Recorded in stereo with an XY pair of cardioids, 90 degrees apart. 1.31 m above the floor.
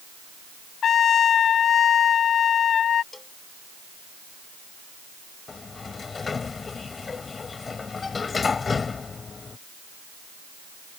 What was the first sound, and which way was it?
A trumpet, 65° left.